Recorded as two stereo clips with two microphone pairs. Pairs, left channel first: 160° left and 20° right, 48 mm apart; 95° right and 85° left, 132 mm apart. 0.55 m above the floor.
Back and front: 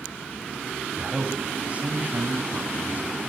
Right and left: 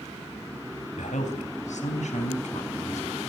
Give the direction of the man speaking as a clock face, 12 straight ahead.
3 o'clock.